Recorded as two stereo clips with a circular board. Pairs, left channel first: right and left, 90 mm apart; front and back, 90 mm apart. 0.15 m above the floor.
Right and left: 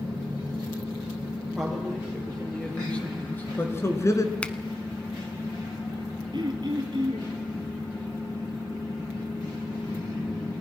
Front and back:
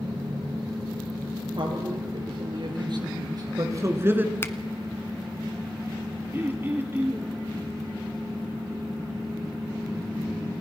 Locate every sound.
1.6 s a man speaking: straight behind, 5 m; by 4.3 s 115° right, 2 m
4.4 s a finger snap: 25° right, 1.0 m
6.3 s throat clearing: 120° left, 2 m